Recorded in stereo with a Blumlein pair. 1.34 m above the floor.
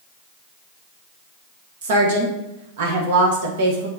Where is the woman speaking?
55° right, 0.9 m.